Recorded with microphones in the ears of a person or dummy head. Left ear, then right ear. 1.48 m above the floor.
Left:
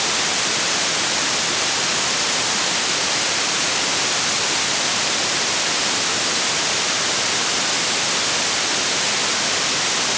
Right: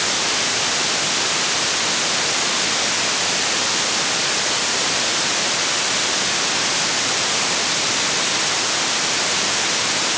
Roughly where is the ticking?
No ticking in this recording.